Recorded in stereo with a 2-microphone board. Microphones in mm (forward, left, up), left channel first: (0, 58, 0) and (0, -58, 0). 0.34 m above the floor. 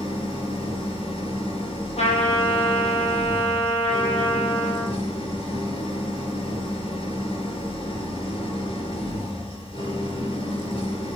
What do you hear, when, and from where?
0.0 s an engine running: 60° left (ahead or behind), 3 m
2.0 s a trumpet: 65° left (ahead or behind), 4.5 m